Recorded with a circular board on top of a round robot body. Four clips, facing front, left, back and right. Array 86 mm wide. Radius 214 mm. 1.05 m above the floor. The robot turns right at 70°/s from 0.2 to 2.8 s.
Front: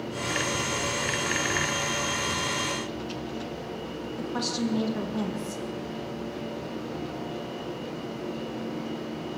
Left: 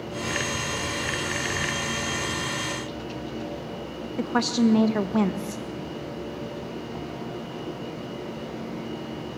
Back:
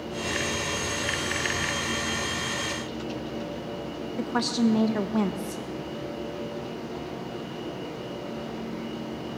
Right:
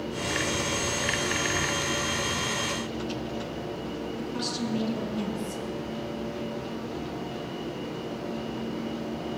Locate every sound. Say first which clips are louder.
4.2 s a woman speaking: left 13 dB, back 5 dB; 115° left, 1.3 m